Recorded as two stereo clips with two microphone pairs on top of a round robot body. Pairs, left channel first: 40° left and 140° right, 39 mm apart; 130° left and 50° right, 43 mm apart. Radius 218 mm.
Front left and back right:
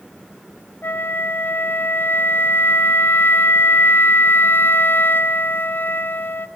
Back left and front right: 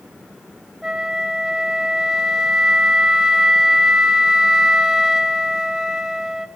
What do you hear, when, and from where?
0.8 s a flute: 20° left, 0.7 m